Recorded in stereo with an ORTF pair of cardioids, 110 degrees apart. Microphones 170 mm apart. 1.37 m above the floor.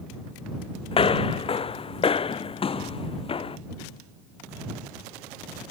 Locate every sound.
0.9 s footsteps: 35° left